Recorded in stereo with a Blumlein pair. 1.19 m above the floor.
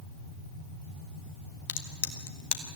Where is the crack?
45° left, 1.8 m.